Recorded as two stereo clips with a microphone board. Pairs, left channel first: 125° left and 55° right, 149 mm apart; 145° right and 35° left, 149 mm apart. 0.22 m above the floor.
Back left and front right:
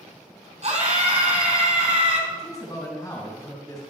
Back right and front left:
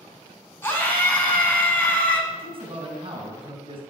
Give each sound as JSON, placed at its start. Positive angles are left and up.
{"t": 0.6, "sound": "a scream", "azimuth_deg": -75, "distance_m": 3.0}
{"t": 2.3, "sound": "a man speaking", "azimuth_deg": 70, "distance_m": 2.5}